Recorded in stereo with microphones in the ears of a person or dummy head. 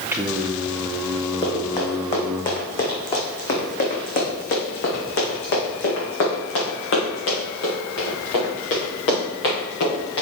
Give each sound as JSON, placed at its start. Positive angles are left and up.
{"t": 0.1, "sound": "singing", "side_deg": -10, "distance_m": 0.8}
{"t": 1.4, "sound": "running footsteps", "side_deg": 30, "distance_m": 3.0}